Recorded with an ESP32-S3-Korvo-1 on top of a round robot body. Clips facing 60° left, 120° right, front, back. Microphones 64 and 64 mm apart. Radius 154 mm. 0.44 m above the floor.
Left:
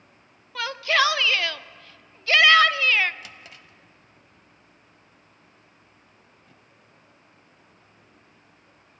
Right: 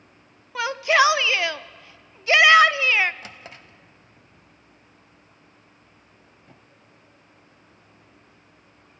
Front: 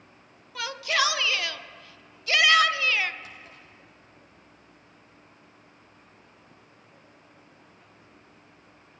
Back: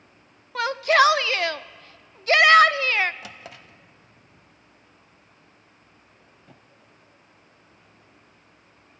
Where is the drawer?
Straight behind, 0.5 m.